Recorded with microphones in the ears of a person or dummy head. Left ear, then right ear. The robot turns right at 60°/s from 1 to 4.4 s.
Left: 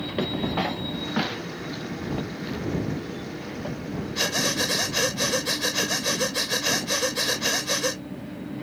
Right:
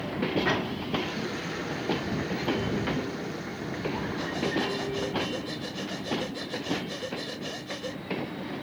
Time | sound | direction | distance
4.2 | breathing | 75° left (ahead or behind) | ?